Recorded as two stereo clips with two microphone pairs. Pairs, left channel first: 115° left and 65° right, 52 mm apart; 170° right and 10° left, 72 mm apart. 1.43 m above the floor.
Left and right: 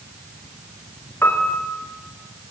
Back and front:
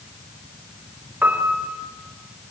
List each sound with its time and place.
1.2 s a piano: 75° left, 4 m